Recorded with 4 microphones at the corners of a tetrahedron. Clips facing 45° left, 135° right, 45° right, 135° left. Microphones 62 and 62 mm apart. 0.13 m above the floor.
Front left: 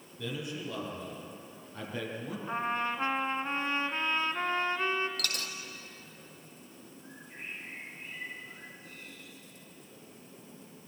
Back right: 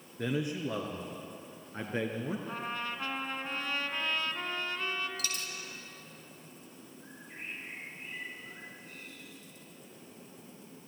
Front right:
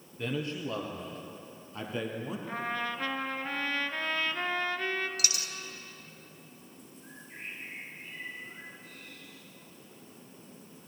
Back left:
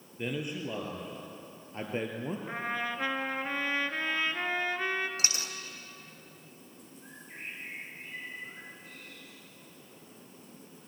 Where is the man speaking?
150° right, 2.5 m; by 2.4 s 170° left, 3 m.